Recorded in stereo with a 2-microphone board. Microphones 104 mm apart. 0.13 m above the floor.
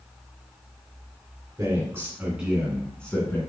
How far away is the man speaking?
About 1.2 m.